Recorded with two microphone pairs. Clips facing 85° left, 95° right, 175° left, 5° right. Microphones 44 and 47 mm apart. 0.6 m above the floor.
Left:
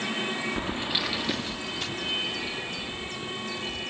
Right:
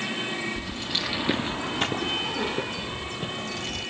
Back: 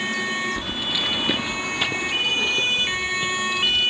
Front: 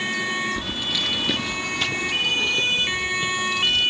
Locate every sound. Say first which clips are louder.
0.6 s keys jangling: left 2 dB, even; 105° left; by 3.9 s 100° right